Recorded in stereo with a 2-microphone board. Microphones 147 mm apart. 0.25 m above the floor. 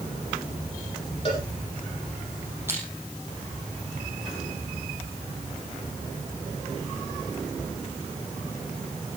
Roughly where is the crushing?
Centre.